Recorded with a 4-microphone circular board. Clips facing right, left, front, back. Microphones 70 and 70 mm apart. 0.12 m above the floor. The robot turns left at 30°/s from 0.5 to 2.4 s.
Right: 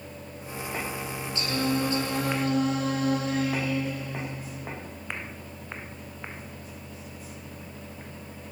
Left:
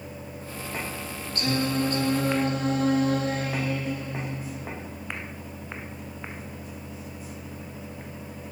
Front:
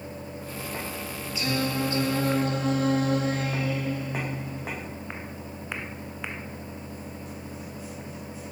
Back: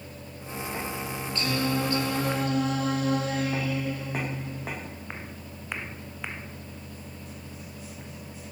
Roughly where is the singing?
Left.